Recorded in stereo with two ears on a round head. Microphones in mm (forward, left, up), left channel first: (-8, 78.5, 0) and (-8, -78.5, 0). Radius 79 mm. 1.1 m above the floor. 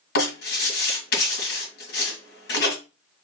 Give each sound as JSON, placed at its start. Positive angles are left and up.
{"t": 0.1, "sound": "writing", "side_deg": 65, "distance_m": 1.9}